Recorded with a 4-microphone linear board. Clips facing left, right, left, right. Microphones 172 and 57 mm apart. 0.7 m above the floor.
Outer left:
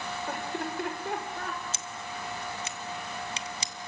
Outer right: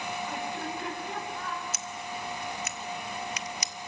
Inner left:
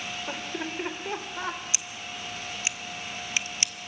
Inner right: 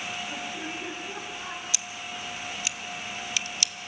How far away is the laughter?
About 3.5 m.